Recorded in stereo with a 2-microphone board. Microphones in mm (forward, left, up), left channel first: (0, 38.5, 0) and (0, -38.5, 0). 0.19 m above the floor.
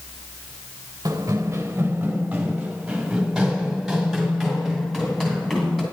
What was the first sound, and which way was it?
Running footsteps, 45° right (ahead or behind).